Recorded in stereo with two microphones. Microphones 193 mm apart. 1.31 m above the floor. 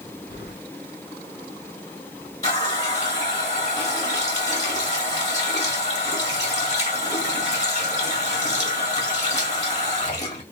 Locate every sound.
0.3 s keys jangling: 70° left (ahead or behind), 1.0 m
2.4 s a running tap: 35° left (ahead or behind), 2 m